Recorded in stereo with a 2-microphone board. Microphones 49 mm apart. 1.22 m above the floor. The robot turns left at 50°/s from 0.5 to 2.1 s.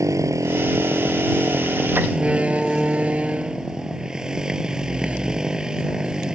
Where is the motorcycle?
85° right; by 6.4 s 165° right.